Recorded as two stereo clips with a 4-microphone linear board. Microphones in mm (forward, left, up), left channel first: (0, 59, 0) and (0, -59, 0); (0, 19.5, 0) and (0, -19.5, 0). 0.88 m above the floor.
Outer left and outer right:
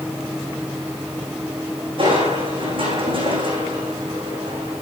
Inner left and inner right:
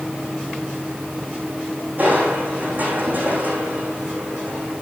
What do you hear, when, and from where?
2.0 s crushing: 45° right (ahead or behind), 8.5 m